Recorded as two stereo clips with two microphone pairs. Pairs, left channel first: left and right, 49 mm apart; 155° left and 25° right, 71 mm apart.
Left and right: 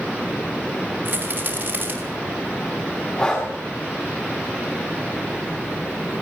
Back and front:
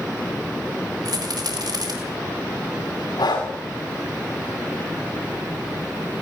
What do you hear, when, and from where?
1.1 s a rattle: 40° right, 6 m
3.2 s breathing: 155° left, 8.5 m